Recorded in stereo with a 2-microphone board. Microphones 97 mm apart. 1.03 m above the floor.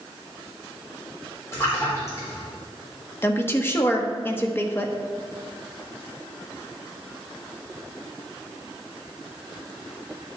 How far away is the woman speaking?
About 1.2 m.